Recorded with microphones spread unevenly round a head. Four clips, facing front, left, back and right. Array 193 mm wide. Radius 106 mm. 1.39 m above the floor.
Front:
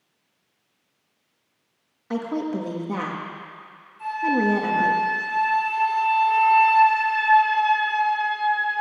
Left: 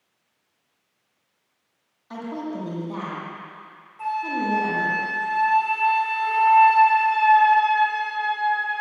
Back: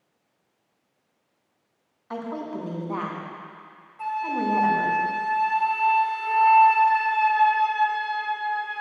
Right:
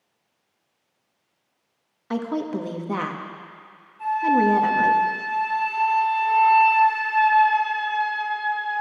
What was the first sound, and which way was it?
A woman speaking, 70° right.